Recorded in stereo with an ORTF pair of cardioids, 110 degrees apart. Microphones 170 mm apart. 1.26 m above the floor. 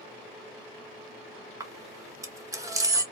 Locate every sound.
1.6 s a camera shutter: 20° right, 0.8 m